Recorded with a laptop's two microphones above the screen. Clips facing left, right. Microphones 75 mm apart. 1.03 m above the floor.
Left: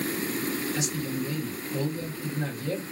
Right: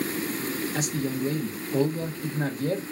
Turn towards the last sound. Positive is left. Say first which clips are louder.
# right 2 dB
turn(degrees=-45)  # may be behind; listen again after turning